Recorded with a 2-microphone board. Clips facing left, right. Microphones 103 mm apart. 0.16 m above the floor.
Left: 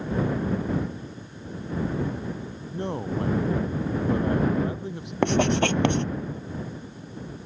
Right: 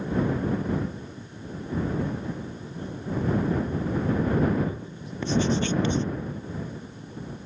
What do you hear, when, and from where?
2.7 s a man speaking: 75° left (ahead or behind)
5.2 s writing: 70° left (ahead or behind)